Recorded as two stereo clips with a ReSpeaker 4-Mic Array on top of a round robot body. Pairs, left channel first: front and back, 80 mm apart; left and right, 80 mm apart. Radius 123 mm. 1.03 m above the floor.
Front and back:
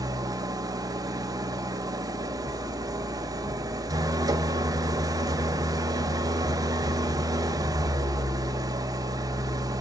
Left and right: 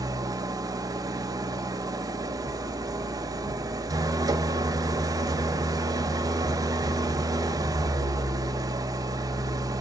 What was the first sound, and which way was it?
An engine running, 135° right.